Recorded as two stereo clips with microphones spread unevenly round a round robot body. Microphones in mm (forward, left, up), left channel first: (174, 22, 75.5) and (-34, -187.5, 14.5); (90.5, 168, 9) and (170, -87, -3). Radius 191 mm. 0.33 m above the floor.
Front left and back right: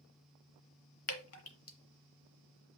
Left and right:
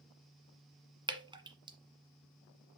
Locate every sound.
1.1 s dripping: straight ahead, 1.5 m